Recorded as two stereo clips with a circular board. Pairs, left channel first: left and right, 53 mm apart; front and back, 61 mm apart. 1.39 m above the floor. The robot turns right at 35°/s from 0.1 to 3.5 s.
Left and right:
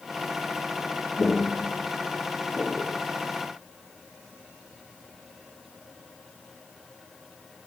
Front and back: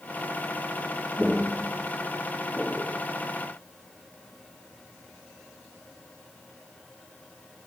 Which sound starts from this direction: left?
Footsteps, at 1.2 s.